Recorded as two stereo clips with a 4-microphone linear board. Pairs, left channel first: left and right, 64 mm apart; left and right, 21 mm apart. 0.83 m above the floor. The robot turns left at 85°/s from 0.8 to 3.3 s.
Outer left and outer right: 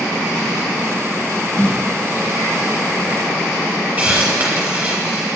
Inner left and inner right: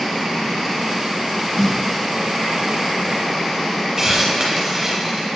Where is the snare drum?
20° left (ahead or behind), 0.7 m; by 1.9 s 25° left (ahead or behind), 0.7 m.